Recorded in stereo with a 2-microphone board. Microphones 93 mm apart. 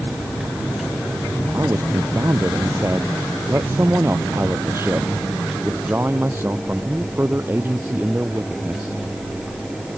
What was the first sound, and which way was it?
A man speaking, 30° right (ahead or behind).